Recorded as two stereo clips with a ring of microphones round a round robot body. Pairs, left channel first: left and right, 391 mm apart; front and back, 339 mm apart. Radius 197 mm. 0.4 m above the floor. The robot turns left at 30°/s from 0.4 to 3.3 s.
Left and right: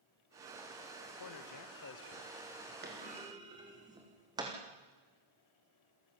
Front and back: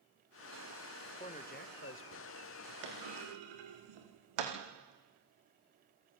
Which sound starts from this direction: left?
A man speaking, at 1.2 s.